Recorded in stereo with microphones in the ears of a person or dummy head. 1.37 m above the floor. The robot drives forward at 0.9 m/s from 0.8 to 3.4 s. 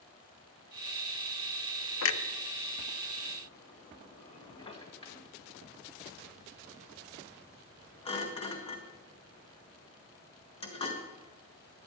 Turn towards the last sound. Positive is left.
turn(degrees=30)  # may be behind; listen again after turning